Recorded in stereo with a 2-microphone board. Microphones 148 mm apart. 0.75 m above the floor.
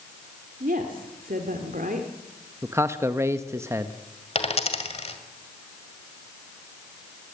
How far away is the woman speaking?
About 2 m.